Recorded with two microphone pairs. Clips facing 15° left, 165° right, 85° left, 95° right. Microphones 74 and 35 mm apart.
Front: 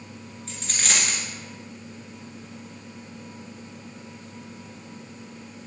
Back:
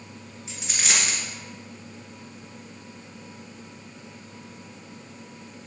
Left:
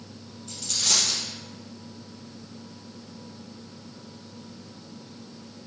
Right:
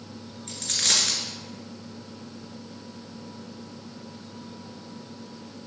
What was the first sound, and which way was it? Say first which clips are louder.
A dropped coin: even, right 1 dB; 90° right.